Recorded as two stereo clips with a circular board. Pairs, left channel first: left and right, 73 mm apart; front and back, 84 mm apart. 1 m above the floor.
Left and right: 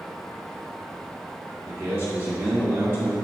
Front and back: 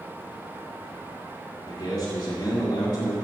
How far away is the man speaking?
About 2 m.